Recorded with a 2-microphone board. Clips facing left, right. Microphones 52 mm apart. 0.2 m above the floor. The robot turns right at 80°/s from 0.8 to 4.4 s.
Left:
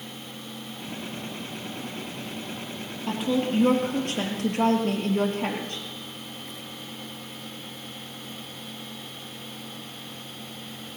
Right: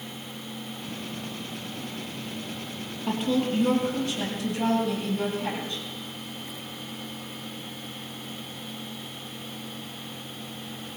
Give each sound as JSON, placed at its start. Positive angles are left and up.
{"t": 3.1, "sound": "a woman speaking", "azimuth_deg": -10, "distance_m": 4.0}